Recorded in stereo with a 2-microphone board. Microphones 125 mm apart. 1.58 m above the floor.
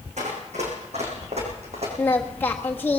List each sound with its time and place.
0.2 s running footsteps: 70° right (ahead or behind), 5 m; by 1.9 s 55° right (ahead or behind), 5 m
2.0 s singing: 15° left (ahead or behind), 1.4 m